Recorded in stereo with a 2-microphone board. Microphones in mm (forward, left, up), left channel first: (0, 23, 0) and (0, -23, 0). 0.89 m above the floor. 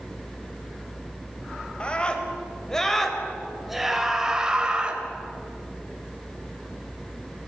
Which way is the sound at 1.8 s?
25° left (ahead or behind).